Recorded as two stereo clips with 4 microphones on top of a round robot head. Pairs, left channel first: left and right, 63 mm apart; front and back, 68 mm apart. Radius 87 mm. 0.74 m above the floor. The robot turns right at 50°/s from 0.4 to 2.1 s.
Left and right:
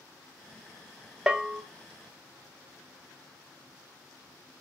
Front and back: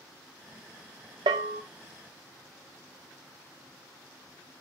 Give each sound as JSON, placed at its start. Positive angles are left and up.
{"t": 1.3, "sound": "a bell", "azimuth_deg": -170, "distance_m": 0.5}